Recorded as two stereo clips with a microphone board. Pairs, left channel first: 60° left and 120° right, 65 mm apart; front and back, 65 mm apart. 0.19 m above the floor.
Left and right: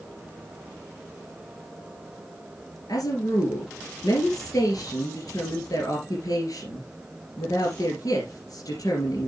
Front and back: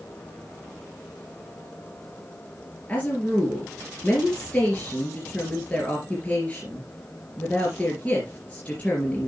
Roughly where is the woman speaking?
Left.